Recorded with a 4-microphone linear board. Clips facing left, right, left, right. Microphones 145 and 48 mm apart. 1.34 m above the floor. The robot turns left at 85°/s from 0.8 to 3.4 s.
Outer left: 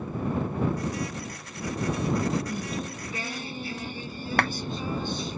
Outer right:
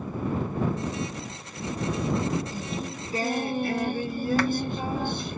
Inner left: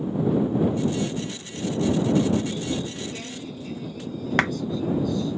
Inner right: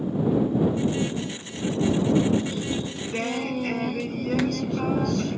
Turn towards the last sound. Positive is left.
turn(degrees=60)  # may be behind; listen again after turning